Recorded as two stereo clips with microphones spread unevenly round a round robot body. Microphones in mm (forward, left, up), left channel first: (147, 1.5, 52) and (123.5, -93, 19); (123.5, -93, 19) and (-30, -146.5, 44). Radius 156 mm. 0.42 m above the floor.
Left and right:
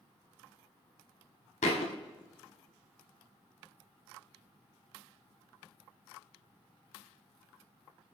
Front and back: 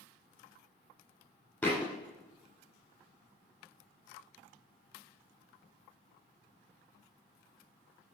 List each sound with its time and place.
1.6 s a thud: 105° left, 1.1 m